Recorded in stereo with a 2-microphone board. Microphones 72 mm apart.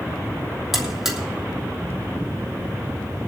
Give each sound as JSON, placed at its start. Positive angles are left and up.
{"t": 0.7, "sound": "a buzzer", "side_deg": -5, "distance_m": 3.0}